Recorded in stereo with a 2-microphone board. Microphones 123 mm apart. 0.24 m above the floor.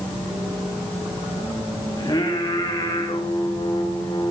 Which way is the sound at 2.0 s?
35° left (ahead or behind).